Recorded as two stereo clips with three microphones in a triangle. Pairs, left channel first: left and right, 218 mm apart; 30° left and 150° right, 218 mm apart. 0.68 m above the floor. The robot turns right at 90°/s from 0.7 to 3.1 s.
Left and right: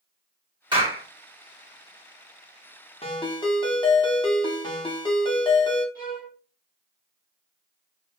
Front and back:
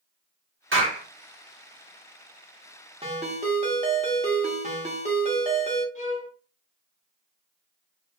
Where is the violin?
65° left, 1.0 m.